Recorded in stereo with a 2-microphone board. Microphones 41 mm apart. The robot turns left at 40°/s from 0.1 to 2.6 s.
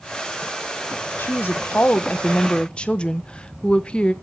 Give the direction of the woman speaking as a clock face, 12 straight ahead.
9 o'clock.